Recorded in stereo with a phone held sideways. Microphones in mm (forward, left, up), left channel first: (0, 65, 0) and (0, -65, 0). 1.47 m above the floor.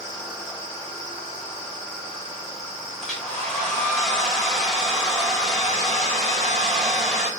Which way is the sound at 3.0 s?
Centre (ahead or behind).